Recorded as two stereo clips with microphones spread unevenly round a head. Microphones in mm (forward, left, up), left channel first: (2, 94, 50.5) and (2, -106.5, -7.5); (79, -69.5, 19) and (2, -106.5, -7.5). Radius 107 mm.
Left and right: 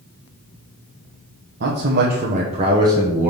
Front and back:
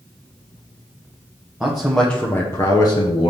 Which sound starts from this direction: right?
A man speaking, at 1.6 s.